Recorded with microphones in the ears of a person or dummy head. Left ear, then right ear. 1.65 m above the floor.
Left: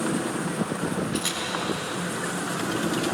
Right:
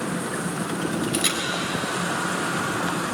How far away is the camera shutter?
About 3 m.